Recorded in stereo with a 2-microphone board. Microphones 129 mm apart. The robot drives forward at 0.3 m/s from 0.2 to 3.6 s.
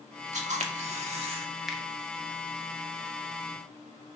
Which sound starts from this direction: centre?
A finger snap, at 1.7 s.